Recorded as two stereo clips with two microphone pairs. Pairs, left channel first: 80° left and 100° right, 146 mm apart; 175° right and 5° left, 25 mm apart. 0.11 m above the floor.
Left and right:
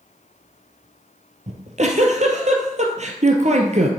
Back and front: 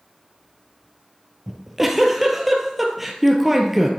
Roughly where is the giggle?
Right.